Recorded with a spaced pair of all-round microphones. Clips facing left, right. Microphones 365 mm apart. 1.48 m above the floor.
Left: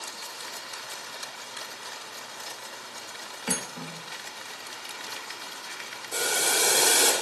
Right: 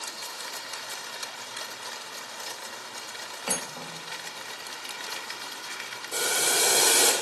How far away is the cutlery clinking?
About 1.4 m.